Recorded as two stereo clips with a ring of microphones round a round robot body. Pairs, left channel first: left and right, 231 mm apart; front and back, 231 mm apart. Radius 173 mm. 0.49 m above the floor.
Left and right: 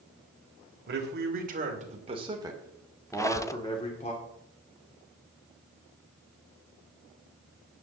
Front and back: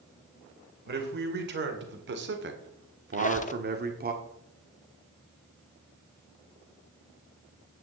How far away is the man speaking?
About 2.5 m.